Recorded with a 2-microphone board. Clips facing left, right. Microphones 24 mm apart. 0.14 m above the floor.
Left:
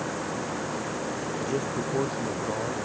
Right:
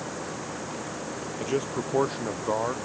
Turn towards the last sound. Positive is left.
turn(degrees=-35)  # may be behind; listen again after turning